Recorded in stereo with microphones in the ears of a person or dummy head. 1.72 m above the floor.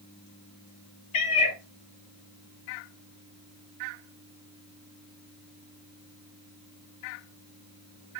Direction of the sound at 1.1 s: 40° left (ahead or behind).